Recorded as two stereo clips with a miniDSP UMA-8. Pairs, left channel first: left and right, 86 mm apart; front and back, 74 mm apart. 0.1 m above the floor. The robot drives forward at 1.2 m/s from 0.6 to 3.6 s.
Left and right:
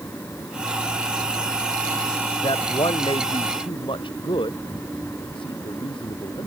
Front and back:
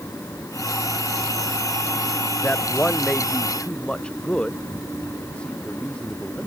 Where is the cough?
I don't hear a cough.